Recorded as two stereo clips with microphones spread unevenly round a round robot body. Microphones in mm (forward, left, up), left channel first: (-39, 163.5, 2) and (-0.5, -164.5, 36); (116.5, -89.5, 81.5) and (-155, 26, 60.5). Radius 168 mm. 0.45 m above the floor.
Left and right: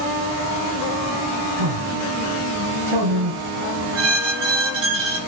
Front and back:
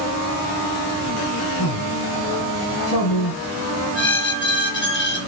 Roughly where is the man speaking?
Ahead right.